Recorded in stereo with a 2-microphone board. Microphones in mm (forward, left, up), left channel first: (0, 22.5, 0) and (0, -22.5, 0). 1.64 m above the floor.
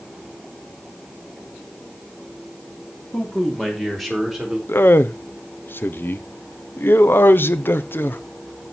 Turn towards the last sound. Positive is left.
turn(degrees=60)  # may be behind; listen again after turning